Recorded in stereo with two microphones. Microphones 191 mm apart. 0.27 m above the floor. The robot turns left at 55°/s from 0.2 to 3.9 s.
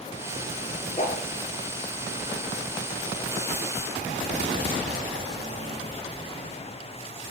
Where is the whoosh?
35° left (ahead or behind), 2 m; by 1.3 s 50° left (ahead or behind), 2 m.